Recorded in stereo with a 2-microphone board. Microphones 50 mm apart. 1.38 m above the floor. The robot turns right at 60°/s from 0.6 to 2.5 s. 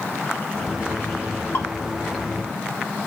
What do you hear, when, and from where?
1.5 s dripping: 50° left (ahead or behind), 4 m; by 1.7 s 40° left (ahead or behind), 4 m